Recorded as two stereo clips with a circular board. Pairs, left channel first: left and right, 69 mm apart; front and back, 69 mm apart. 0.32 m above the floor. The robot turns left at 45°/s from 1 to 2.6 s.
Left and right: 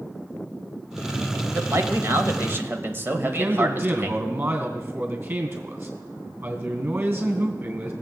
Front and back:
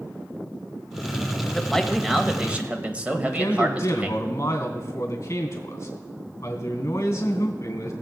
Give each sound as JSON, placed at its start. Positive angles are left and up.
{"t": 1.5, "sound": "a man speaking", "azimuth_deg": -75, "distance_m": 1.2}
{"t": 3.1, "sound": "a man speaking", "azimuth_deg": -40, "distance_m": 2.5}